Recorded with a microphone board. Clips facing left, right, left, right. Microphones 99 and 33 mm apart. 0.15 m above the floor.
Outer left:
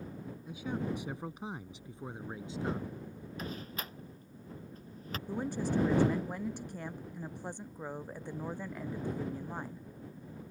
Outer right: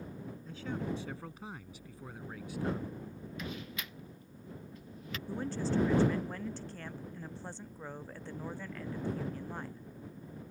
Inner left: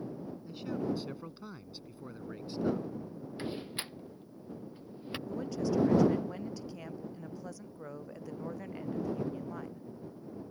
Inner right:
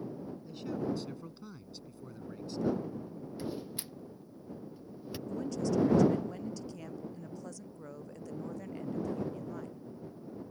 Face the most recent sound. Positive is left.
turn(degrees=15)  # may be behind; listen again after turning